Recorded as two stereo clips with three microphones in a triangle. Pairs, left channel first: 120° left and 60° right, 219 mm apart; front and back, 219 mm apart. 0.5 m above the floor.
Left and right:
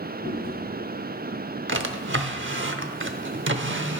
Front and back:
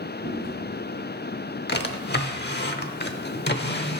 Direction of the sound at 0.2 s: 75° left.